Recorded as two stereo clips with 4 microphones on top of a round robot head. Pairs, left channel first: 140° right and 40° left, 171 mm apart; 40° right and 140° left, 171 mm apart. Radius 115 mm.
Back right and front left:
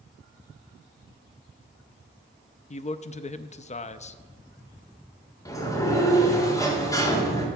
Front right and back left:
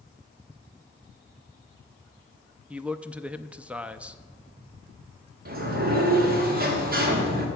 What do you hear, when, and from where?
2.7 s a man speaking: 140° right, 0.6 m
5.5 s a sliding door: 150° left, 1.9 m